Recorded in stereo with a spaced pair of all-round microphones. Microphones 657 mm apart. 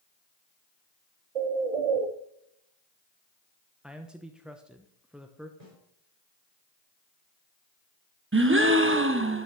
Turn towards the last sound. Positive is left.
turn(degrees=-20)  # may be behind; listen again after turning